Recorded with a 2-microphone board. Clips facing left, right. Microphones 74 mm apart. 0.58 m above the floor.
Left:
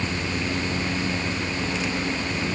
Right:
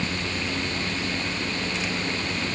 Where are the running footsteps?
No running footsteps in this recording.